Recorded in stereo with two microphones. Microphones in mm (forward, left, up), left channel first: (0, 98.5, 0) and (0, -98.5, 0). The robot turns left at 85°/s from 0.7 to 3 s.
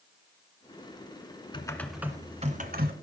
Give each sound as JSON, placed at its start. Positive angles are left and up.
{"t": 1.5, "sound": "typing on a keyboard", "azimuth_deg": 30, "distance_m": 1.6}